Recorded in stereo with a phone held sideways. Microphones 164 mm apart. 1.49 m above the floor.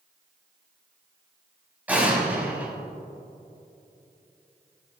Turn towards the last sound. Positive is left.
turn(degrees=-10)  # may be behind; listen again after turning